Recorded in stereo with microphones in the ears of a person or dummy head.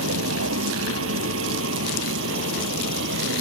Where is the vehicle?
85° right; by 3.4 s 70° right (ahead or behind).